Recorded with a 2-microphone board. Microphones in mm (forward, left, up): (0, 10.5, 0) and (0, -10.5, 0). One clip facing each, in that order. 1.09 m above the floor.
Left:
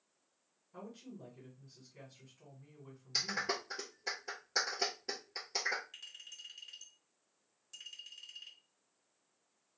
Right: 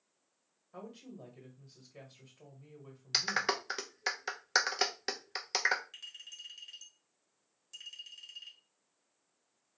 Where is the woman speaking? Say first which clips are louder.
Right 2 dB; 65° right (ahead or behind), 1.3 m.